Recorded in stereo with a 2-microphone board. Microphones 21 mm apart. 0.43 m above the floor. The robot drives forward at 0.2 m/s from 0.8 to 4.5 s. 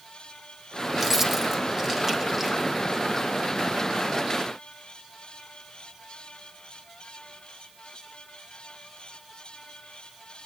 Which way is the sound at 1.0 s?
20° right (ahead or behind).